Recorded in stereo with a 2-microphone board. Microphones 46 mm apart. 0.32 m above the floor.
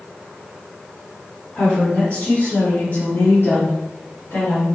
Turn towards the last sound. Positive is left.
turn(degrees=60)  # may be behind; listen again after turning